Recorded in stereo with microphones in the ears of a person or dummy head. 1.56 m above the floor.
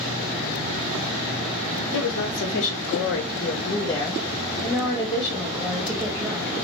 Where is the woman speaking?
65° left (ahead or behind), 1.1 m; by 6.5 s 10° right (ahead or behind), 2 m.